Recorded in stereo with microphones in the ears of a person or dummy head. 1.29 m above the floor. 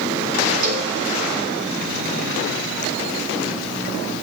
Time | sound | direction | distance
0.6 | a cowbell | 50° right (ahead or behind) | 5.5 m